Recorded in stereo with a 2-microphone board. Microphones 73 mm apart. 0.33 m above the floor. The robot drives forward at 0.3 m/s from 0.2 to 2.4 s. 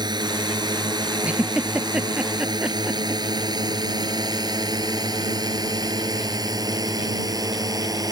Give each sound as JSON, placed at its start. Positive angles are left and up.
{"t": 0.0, "sound": "a drone", "side_deg": -75}
{"t": 1.2, "sound": "a giggle", "side_deg": -15}